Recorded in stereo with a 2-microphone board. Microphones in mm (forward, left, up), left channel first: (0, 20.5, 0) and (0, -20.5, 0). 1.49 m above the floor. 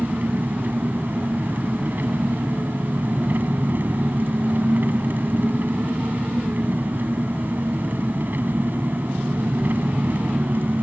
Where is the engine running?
50° right (ahead or behind).